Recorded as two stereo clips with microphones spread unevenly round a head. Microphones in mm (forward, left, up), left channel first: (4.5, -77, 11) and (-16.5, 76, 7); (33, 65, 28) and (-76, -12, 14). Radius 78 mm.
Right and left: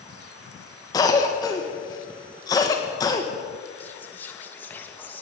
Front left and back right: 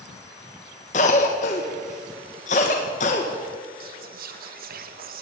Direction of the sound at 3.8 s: 160° right.